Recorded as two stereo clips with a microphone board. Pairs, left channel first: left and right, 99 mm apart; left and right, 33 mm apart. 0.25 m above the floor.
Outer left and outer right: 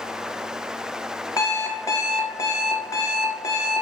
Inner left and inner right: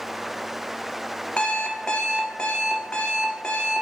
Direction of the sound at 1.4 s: 35° left (ahead or behind).